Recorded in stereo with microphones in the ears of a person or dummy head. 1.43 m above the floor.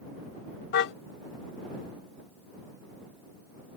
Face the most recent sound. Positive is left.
turn(degrees=70)  # may be behind; listen again after turning